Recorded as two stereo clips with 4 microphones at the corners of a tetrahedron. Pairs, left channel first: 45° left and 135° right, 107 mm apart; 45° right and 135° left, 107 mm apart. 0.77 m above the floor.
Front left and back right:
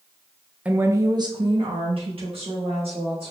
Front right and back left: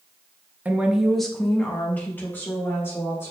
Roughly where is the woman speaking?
Behind.